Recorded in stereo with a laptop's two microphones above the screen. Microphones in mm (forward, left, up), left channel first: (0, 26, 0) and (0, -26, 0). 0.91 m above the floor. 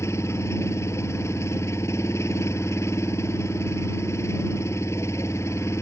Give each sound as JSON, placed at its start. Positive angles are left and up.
{"t": 0.0, "sound": "an engine running", "side_deg": 65}